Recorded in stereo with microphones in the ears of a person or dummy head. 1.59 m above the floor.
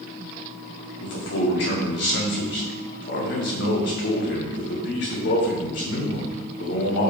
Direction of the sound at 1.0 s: 65° left (ahead or behind).